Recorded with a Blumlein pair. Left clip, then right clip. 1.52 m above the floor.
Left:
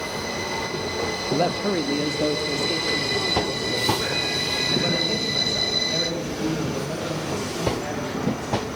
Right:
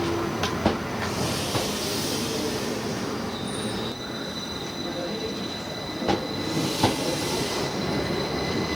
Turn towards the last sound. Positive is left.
turn(degrees=40)